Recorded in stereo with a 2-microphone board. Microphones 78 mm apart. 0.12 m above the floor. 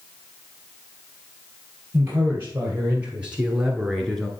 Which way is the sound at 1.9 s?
30° right (ahead or behind).